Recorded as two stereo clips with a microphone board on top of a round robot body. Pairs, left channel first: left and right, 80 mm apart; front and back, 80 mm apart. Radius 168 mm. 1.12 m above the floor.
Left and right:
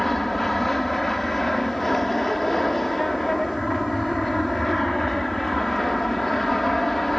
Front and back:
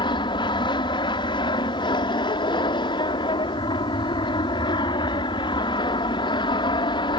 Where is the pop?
No pop in this recording.